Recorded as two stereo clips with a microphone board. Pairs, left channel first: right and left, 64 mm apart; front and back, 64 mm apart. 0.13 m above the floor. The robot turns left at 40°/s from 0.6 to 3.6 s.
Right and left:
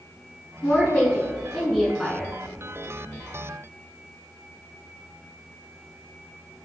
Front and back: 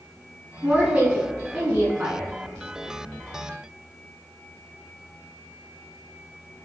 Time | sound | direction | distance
0.6 | a woman speaking | 120° right | 1.3 m